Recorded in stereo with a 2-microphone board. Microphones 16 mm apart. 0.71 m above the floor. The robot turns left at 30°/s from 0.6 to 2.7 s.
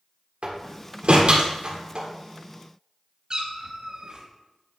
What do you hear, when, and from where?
0.4 s a door slam: 70° right (ahead or behind), 1.6 m; by 2.1 s 55° right (ahead or behind), 1.6 m
3.3 s a cat meowing: 40° right (ahead or behind), 1.1 m